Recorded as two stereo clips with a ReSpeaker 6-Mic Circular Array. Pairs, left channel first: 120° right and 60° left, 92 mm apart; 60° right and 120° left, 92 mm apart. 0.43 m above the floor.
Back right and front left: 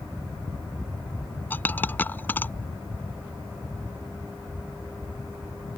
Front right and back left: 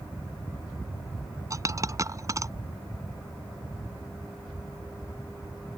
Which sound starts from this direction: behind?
A dropped coin, at 1.5 s.